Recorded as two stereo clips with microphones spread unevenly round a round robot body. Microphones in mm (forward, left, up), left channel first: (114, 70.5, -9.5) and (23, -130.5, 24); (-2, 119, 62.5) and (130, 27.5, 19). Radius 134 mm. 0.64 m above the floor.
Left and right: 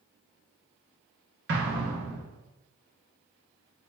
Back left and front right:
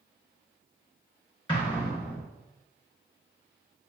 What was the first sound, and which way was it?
An explosion, 145° right.